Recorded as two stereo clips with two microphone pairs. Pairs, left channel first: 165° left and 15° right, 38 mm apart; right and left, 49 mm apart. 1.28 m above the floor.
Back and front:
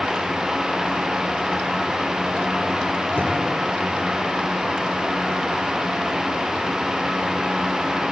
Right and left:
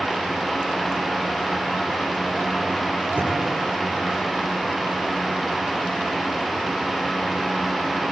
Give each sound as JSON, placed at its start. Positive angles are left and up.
{"t": 3.1, "sound": "knocking", "azimuth_deg": 140, "distance_m": 7.5}